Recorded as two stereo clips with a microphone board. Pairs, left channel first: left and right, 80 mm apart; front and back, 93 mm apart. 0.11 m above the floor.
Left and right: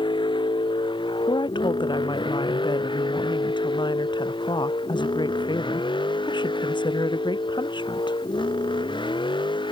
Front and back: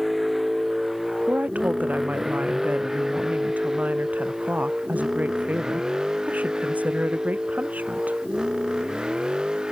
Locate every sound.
0.0 s a vehicle: 90° left; by 9.7 s 95° left
1.3 s a woman speaking: 105° left